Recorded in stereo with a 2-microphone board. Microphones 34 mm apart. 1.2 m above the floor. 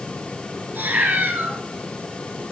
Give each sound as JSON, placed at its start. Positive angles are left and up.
{"t": 0.8, "sound": "a cat meowing", "side_deg": -70, "distance_m": 3.5}